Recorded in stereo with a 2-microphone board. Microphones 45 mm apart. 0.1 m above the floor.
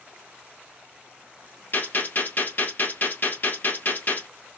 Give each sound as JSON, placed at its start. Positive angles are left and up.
{"t": 1.7, "sound": "a gunshot", "side_deg": 45, "distance_m": 1.7}